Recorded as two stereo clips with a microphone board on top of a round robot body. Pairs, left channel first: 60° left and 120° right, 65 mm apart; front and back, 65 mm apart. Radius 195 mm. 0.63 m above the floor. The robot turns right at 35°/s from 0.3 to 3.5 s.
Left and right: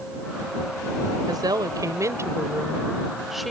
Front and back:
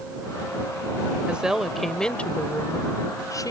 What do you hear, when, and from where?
1.3 s a woman speaking: 110° right; by 3.5 s 30° right